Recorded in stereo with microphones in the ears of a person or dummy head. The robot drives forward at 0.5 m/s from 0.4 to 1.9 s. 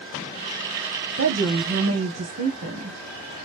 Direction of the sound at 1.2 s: 75° right (ahead or behind).